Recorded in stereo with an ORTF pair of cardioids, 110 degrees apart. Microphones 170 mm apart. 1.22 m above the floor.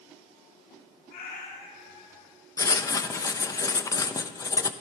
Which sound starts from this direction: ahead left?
A cat meowing, at 1.1 s.